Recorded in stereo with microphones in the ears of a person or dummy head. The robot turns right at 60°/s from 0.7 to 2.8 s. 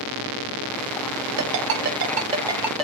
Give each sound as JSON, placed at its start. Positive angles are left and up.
{"t": 1.4, "sound": "a ringtone", "side_deg": -80, "distance_m": 0.6}